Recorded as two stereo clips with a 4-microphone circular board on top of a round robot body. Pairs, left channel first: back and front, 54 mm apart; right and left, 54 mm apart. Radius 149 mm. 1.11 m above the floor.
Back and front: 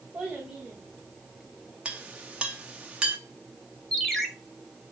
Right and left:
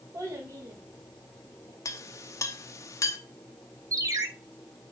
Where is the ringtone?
95° left, 1.5 m.